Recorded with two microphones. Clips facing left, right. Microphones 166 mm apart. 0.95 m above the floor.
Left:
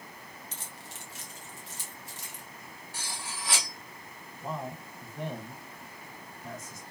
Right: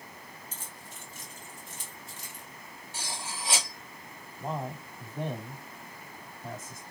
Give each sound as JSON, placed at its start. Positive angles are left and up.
{"t": 0.5, "sound": "keys jangling", "side_deg": 70, "distance_m": 0.8}
{"t": 2.9, "sound": "cutlery clinking", "side_deg": -25, "distance_m": 1.4}
{"t": 4.4, "sound": "a man speaking", "side_deg": -40, "distance_m": 1.7}